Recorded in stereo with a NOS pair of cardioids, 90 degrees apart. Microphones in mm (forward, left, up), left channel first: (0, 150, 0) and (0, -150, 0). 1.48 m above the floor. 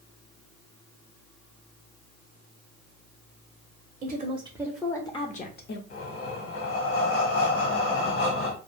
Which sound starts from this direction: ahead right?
A woman speaking, at 4.0 s.